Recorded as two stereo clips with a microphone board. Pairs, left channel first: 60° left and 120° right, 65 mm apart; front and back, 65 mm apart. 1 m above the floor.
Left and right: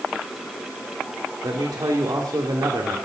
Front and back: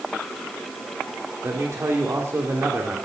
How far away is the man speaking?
About 2 m.